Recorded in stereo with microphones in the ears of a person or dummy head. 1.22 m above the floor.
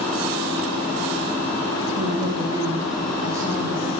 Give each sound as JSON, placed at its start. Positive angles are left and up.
{"t": 2.0, "sound": "a woman speaking", "side_deg": -35, "distance_m": 1.4}